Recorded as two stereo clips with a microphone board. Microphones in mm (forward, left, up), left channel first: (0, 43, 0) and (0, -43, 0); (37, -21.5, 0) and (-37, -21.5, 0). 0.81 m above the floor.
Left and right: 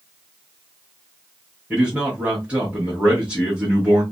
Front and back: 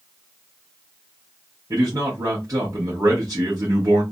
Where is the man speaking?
160° right, 1.0 m.